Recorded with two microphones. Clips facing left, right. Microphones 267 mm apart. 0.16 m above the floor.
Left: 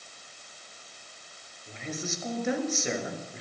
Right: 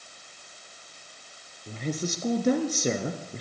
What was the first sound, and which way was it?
A woman speaking, 40° right (ahead or behind).